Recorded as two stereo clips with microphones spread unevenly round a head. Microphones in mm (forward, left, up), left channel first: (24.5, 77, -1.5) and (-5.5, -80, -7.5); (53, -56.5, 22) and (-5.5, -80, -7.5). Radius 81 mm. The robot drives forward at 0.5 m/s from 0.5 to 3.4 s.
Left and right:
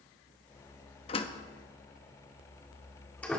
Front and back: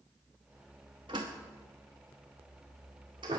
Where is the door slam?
135° left, 0.8 m; by 3.4 s 160° left, 1.8 m.